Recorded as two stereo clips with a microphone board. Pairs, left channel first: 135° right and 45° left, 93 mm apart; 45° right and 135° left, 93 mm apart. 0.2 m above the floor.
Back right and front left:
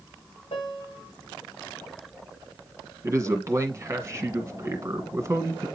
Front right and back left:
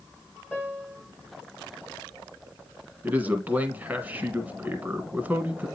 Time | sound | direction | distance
0.5 | a piano | 150° right | 3 m
3.0 | a man speaking | 75° left | 1.5 m